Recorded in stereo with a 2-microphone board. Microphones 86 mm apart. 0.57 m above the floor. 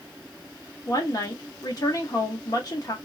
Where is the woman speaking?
45° left (ahead or behind), 1.0 m.